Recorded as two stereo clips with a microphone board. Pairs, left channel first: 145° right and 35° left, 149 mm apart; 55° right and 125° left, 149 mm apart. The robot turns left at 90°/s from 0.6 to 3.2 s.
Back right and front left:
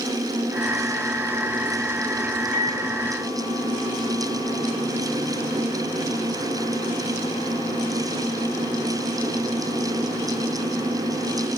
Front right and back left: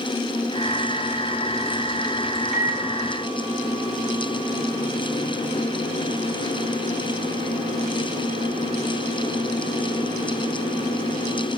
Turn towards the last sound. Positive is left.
turn(degrees=150)